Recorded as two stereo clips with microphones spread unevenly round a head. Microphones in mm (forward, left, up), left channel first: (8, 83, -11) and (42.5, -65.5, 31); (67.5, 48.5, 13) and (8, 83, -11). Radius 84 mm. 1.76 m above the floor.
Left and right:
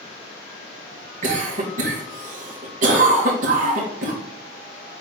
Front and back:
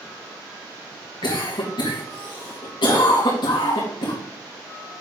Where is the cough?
35° right, 3 m.